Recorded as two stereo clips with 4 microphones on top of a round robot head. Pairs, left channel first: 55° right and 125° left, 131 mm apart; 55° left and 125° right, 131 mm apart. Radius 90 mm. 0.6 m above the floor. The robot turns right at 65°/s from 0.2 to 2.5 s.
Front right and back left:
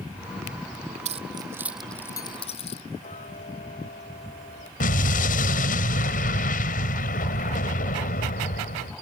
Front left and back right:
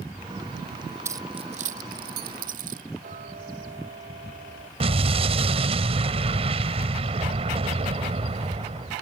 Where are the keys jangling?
165° left; by 2.8 s 100° right.